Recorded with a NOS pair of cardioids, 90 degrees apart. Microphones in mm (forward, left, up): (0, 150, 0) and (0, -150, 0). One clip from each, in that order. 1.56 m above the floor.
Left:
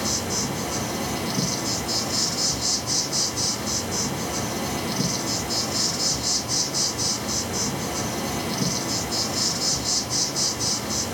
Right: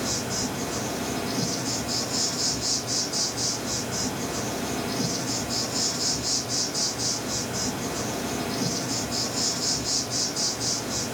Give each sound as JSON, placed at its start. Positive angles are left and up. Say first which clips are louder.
{"t": 0.0, "sound": "an insect", "louder": "left 2 dB", "azimuth_deg": 40, "distance_m": 1.3}